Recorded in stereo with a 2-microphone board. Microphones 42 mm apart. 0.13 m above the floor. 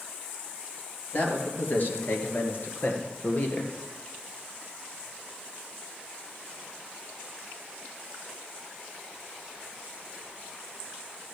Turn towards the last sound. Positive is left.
turn(degrees=40)  # may be behind; listen again after turning